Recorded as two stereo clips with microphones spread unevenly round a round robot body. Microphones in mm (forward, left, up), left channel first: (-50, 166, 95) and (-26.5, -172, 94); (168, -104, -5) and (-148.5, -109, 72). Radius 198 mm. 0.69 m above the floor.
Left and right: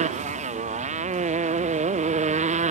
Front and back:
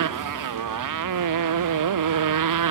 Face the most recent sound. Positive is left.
turn(degrees=-155)